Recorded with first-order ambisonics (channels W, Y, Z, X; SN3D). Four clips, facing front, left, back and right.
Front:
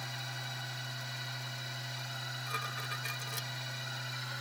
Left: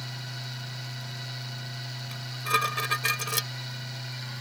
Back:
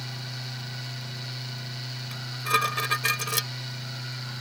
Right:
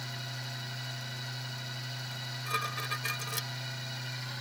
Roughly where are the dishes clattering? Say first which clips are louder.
Left 8 dB, back 15 dB; behind left.